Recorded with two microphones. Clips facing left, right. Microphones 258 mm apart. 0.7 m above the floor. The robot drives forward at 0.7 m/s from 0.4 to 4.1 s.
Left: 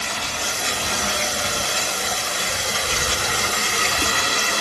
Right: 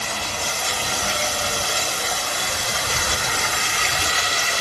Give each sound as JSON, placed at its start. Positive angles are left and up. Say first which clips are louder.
{"t": 0.0, "sound": "running water", "louder": "right 1 dB", "side_deg": 15, "distance_m": 3.5}